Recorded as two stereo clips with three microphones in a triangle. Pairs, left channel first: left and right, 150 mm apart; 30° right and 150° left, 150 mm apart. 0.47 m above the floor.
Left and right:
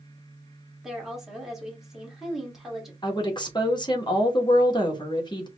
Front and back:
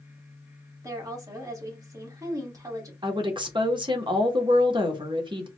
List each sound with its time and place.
0.8 s a woman speaking: 175° right, 1.4 m
3.0 s a woman speaking: 120° left, 0.9 m